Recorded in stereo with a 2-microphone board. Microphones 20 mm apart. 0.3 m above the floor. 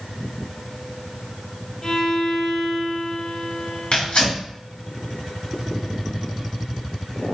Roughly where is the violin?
Left.